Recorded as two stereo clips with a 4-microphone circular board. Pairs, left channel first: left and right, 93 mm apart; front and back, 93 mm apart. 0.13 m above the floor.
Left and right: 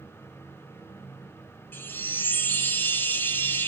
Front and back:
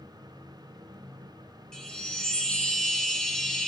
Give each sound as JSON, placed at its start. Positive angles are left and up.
{"t": 1.7, "sound": "a chime", "azimuth_deg": 70, "distance_m": 0.7}